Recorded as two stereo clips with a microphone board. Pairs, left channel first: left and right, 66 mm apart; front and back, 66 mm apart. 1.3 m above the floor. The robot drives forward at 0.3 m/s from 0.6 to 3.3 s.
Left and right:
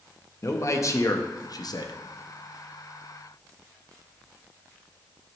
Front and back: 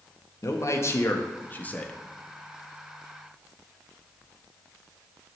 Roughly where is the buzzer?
No buzzer in this recording.